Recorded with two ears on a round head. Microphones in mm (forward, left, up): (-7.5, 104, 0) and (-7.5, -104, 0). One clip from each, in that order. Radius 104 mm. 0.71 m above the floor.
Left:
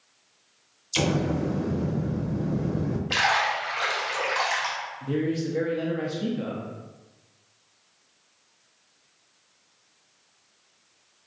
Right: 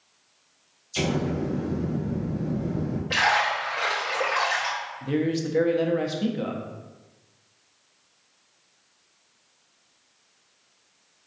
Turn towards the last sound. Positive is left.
turn(degrees=-25)  # may be behind; listen again after turning